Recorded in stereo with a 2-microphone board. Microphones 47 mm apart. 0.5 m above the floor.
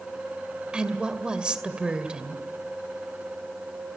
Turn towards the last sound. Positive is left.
turn(degrees=-20)  # may be behind; listen again after turning